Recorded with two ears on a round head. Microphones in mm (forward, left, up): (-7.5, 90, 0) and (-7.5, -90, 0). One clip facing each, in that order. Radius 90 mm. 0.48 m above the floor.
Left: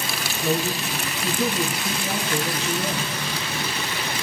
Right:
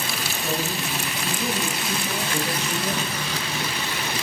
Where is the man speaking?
70° left (ahead or behind), 5 m.